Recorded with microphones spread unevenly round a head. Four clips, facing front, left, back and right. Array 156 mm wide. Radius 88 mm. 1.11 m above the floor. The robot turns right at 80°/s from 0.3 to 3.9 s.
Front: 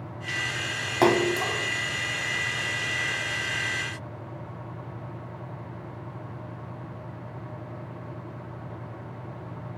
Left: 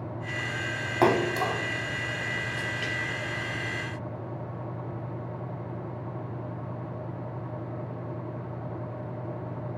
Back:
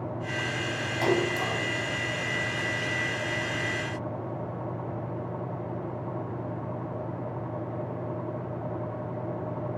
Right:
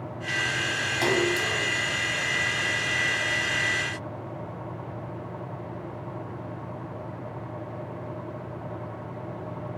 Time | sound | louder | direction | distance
1.0 | a splash | left 3 dB, front 5 dB | 25° left | 2.5 m